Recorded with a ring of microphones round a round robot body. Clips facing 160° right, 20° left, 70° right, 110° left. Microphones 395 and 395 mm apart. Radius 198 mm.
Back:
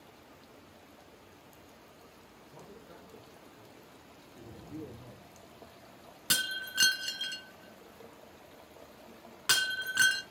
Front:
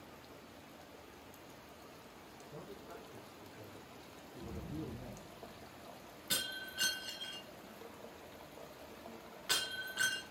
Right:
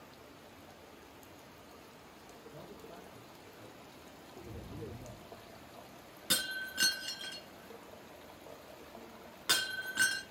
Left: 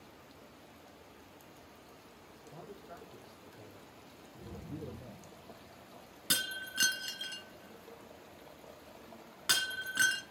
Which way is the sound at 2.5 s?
110° left.